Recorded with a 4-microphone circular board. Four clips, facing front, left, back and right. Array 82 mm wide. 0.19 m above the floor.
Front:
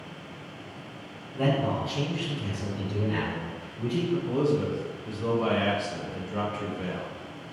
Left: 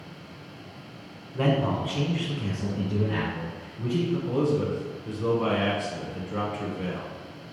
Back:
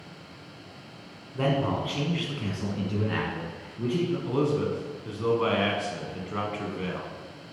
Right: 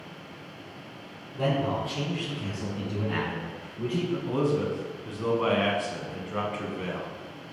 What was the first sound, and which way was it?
A man speaking, 120° left.